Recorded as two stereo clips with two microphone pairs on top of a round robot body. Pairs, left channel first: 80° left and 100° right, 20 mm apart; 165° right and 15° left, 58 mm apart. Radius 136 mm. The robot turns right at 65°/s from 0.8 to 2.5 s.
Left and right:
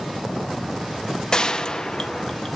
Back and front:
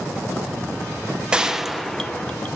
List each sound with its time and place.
1.3 s a gunshot: 60° left, 1.1 m; by 2.5 s 135° left, 1.1 m